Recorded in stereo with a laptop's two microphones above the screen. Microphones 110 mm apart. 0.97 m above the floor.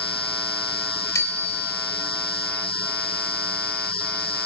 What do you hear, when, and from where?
1.1 s a bicycle bell: 25° left (ahead or behind), 3.5 m